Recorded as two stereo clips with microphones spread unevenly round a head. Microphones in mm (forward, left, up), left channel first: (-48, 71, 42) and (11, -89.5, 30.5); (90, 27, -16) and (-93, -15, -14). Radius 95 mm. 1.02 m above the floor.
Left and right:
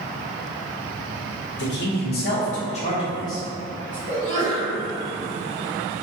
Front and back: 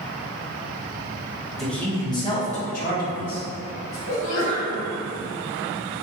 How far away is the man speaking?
About 1.0 m.